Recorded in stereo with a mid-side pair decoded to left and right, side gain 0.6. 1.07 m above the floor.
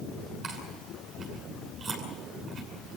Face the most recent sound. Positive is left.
turn(degrees=-45)